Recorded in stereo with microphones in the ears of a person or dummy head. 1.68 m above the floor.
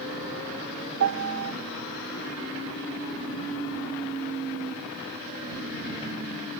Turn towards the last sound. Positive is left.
turn(degrees=-65)  # may be behind; listen again after turning